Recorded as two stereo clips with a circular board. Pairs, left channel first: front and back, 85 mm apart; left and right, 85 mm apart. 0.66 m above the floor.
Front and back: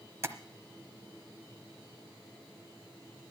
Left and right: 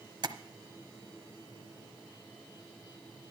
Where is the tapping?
125° right, 1.0 m.